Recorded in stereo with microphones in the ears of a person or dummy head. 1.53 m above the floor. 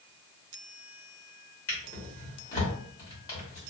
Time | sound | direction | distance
1.7 | a drawer | 25° left (ahead or behind) | 1.1 m